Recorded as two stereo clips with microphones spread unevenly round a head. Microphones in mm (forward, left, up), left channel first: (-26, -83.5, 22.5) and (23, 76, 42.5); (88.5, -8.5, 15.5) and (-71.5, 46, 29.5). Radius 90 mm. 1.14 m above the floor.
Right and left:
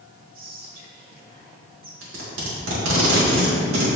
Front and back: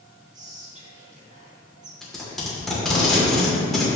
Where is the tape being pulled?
70° left, 3 m.